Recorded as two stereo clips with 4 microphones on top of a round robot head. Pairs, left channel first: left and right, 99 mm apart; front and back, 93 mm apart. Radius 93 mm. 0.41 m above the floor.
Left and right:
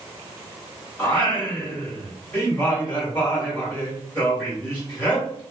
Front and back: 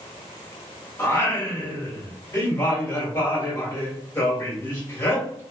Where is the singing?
35° left, 1.5 m.